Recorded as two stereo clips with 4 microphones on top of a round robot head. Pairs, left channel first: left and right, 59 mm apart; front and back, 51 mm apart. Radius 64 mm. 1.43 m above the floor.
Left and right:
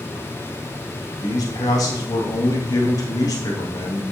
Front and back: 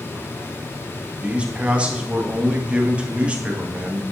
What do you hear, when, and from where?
1.2 s a man speaking: 115° left, 2.5 m